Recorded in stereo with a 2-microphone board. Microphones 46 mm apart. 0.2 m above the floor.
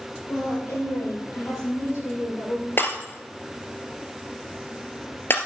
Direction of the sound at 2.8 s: 50° left (ahead or behind).